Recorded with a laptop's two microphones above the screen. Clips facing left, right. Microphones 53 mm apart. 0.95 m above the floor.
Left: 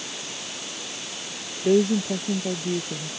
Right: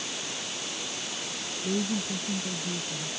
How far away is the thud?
I don't hear a thud.